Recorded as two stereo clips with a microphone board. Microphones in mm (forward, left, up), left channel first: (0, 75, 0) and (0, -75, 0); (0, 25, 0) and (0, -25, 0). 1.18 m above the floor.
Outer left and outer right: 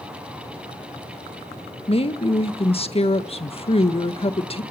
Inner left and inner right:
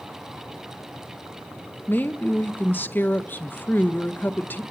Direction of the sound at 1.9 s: 40° left (ahead or behind).